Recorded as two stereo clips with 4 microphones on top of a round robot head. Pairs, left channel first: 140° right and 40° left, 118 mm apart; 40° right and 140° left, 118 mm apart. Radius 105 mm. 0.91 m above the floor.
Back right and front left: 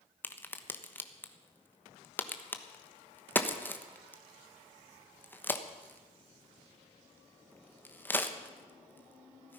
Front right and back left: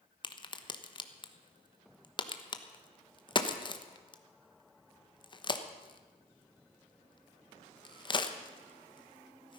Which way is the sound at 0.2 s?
70° right.